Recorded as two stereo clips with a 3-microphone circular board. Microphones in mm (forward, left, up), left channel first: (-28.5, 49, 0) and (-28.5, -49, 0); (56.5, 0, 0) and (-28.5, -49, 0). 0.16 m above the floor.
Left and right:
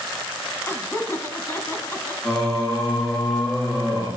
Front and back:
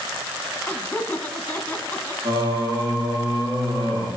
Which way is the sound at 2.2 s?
170° left.